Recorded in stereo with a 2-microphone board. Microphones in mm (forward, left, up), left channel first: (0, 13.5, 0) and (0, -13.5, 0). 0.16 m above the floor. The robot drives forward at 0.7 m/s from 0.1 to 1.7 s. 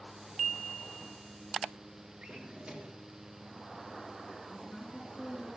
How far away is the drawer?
About 1.6 m.